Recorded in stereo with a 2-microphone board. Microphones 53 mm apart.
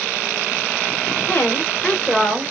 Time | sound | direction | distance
1.3 | a woman speaking | 40° left (ahead or behind) | 1.1 m